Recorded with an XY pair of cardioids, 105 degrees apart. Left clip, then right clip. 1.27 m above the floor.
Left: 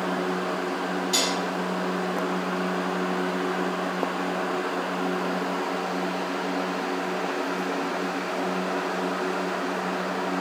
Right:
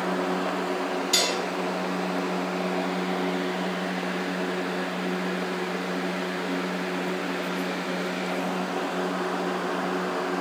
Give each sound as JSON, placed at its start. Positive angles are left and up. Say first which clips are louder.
{"t": 1.1, "sound": "dishes clattering", "louder": "right 1 dB", "azimuth_deg": -25, "distance_m": 4.0}